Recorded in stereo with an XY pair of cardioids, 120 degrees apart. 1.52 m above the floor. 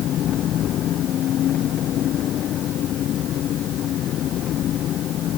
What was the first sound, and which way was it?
An engine running, 60° left.